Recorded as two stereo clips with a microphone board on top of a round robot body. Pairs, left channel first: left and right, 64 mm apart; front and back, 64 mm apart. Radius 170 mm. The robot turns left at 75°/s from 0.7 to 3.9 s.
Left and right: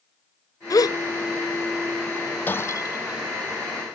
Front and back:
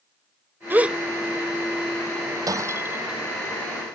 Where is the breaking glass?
155° left; by 3.3 s 90° left.